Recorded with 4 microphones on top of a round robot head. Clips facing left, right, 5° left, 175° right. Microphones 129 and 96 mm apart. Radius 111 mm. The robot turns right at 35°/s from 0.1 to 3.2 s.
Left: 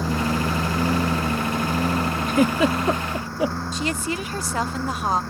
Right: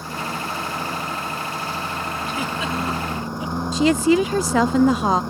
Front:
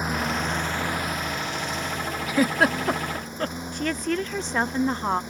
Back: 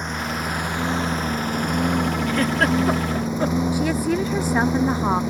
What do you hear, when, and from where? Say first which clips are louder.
0.0 s a lawn mower: left 6 dB, even; 85° left; by 5.3 s 165° right
2.3 s a giggle: left 10 dB, front 2 dB; 75° left; by 3.6 s 105° left
3.7 s a woman speaking: right 10 dB, back 5 dB; 95° right